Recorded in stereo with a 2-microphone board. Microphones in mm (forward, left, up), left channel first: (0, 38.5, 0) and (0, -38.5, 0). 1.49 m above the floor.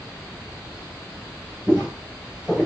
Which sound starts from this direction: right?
Footsteps, at 1.7 s.